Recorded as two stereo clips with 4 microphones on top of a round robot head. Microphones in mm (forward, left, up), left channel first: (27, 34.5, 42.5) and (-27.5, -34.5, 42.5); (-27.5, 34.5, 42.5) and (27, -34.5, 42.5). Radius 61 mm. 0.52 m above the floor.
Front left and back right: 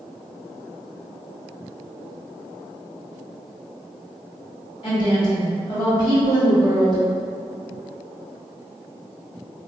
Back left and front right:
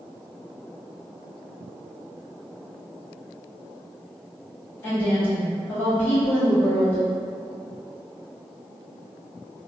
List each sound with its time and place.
4.8 s a woman speaking: 65° left, 2.0 m